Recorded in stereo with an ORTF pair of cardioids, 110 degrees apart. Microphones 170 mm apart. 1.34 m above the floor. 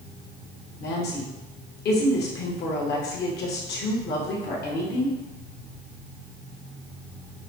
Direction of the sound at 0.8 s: 70° left.